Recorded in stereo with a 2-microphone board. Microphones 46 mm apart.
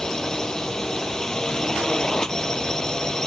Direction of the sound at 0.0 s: 15° left (ahead or behind).